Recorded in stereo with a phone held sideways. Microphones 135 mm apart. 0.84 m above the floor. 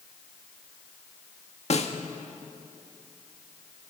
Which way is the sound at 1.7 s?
50° left (ahead or behind).